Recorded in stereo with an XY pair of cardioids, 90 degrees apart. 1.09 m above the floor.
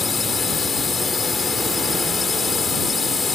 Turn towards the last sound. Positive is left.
turn(degrees=45)